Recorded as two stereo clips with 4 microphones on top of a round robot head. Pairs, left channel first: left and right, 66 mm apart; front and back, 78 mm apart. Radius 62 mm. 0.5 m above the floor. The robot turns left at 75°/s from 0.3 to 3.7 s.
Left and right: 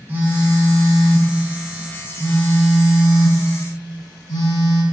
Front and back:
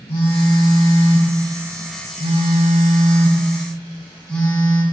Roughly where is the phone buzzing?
Ahead right.